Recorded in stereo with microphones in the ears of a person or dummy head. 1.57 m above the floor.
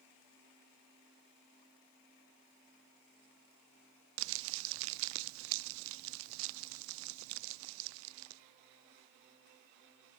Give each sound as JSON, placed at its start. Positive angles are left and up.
{"t": 4.2, "sound": "crumpling", "side_deg": -70, "distance_m": 0.5}